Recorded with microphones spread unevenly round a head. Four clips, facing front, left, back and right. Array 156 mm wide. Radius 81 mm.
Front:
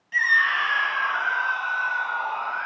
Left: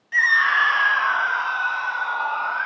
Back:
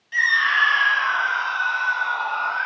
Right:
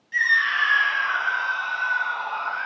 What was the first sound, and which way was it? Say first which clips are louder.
A scream: left 4 dB, back 2 dB; 80° left.